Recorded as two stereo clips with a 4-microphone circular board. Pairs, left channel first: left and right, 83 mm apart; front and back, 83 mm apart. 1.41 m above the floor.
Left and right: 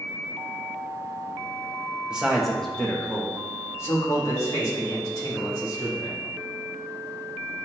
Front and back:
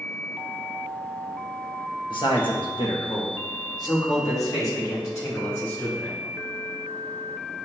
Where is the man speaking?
10° right, 1.5 m; by 6.2 s 55° left, 4 m.